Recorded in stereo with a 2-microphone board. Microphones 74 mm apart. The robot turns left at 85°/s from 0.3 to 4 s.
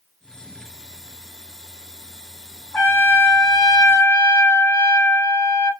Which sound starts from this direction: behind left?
A trumpet, at 2.7 s.